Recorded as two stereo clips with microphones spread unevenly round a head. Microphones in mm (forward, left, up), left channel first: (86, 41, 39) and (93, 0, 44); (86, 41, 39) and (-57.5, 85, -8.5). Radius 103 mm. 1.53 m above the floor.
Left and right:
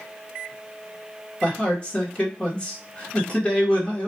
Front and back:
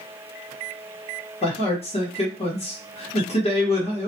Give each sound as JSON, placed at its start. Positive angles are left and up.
{"t": 1.4, "sound": "a man speaking", "azimuth_deg": 35, "distance_m": 1.0}